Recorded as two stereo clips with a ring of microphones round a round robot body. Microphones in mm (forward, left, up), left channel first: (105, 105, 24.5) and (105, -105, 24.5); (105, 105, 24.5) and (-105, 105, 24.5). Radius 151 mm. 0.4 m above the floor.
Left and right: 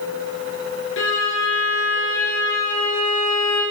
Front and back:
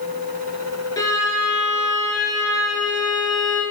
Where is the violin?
75° left, 2.5 m.